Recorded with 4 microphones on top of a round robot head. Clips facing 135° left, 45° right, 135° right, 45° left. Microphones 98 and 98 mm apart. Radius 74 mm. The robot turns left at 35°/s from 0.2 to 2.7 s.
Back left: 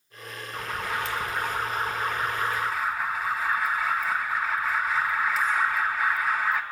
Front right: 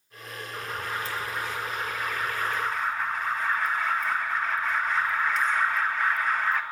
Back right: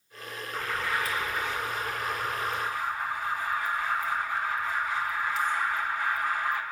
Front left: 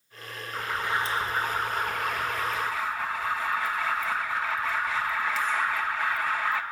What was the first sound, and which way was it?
An alarm, 125° left.